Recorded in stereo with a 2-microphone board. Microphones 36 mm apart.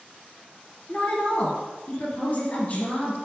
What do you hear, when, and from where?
0.9 s a woman speaking: 45° left (ahead or behind), 1.8 m